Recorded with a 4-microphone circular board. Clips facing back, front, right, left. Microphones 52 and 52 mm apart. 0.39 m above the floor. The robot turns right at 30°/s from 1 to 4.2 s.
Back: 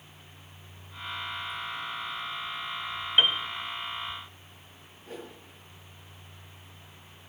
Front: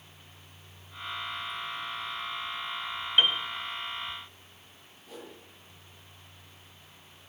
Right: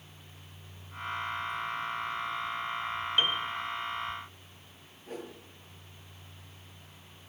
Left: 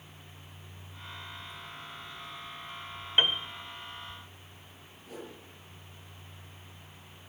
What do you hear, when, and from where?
3.2 s a piano: 105° left, 1.4 m; by 3.4 s 115° left, 1.4 m
5.1 s a whoosh: 135° right, 6 m